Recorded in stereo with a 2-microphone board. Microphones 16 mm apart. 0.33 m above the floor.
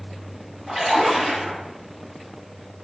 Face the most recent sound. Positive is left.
turn(degrees=-35)  # may be behind; listen again after turning